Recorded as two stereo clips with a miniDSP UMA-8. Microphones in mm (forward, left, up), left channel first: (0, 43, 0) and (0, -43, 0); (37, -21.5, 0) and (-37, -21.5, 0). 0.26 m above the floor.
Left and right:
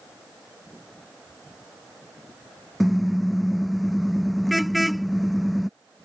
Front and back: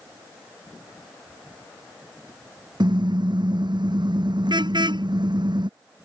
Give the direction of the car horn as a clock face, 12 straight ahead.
6 o'clock.